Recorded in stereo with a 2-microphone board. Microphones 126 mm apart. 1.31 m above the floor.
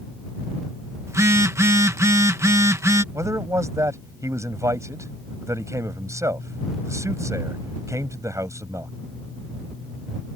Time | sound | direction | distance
1.1 | a phone buzzing | 25° right (ahead or behind) | ?
3.1 | a man speaking | 25° right (ahead or behind) | ?